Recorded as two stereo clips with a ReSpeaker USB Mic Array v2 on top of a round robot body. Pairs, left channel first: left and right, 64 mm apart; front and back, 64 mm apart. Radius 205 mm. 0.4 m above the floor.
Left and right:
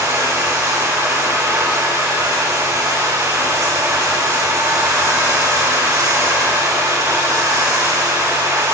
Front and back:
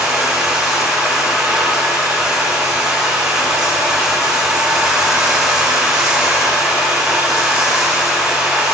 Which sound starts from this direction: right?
Running water, at 0.0 s.